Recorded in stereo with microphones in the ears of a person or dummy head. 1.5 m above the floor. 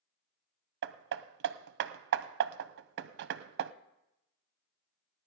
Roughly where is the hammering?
Right.